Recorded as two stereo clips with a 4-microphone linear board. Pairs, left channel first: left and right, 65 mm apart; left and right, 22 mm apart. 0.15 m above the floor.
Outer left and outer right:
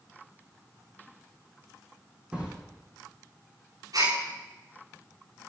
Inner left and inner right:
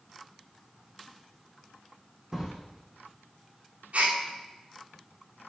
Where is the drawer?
15° right (ahead or behind), 3 m.